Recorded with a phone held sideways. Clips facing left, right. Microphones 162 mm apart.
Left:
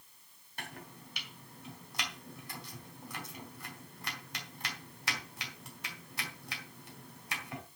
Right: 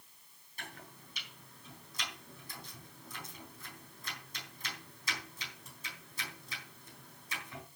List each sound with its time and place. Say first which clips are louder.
0.6 s chopping: left 3 dB; 70° left (ahead or behind), 4 m